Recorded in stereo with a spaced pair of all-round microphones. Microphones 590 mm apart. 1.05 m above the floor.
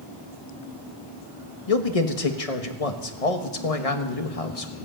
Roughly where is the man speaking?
Left.